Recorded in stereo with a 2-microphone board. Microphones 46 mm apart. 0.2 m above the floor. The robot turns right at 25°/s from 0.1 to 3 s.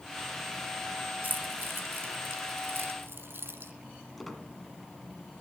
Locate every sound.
1.2 s keys jangling: 45° right (ahead or behind), 1.5 m; by 3.7 s 60° right (ahead or behind), 1.5 m
4.2 s a squeak: 5° left (ahead or behind), 1.4 m